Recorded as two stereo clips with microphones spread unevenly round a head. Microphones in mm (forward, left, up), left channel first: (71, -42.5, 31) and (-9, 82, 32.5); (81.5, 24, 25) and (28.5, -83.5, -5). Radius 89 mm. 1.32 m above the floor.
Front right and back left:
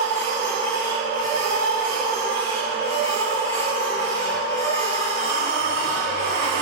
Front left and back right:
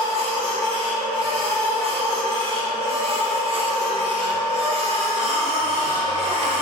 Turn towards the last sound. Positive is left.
turn(degrees=-75)